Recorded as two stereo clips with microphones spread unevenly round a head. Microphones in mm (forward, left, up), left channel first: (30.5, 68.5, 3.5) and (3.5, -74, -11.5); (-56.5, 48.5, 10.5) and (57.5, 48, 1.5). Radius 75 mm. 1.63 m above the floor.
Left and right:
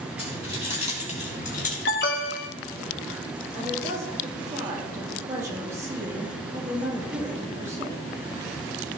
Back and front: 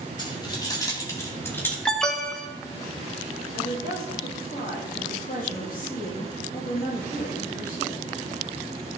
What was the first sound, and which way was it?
Keys jangling, 130° left.